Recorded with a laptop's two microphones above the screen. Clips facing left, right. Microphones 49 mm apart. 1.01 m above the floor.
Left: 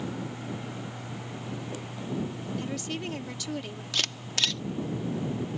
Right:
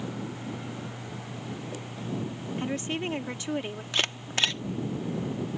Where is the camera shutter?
30° right (ahead or behind).